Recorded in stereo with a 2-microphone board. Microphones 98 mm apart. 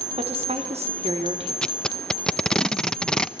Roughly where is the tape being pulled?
Centre.